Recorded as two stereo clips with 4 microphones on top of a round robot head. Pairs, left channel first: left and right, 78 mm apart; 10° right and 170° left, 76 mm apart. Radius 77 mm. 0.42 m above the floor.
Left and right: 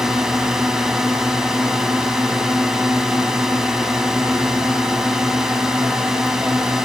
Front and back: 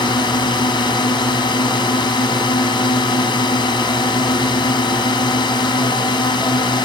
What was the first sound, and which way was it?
A drone, 5° right.